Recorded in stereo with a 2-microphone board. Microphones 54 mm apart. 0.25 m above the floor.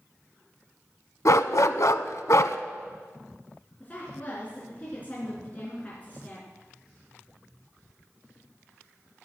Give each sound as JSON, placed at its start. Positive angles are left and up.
{"t": 1.2, "sound": "a dog barking", "side_deg": 70, "distance_m": 0.6}
{"t": 3.8, "sound": "a woman speaking", "side_deg": 30, "distance_m": 4.0}